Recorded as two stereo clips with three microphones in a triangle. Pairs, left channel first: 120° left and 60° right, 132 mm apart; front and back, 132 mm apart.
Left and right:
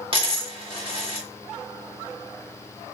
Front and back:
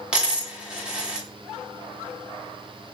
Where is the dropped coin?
100° right, 0.9 m.